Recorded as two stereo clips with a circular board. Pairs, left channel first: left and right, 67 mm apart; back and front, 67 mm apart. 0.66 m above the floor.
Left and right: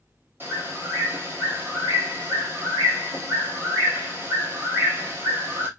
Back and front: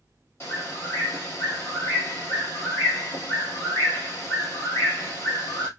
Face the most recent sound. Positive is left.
turn(degrees=-135)